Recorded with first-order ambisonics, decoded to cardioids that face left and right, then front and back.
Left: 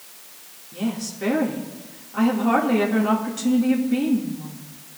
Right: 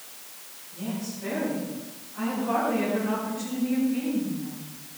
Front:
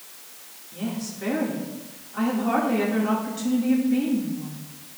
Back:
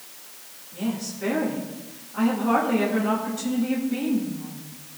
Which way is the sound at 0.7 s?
80° left.